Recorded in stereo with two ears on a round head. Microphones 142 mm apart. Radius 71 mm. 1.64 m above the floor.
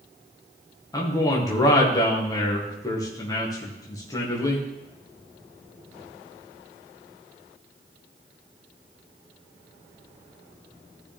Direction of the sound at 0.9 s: 20° left (ahead or behind).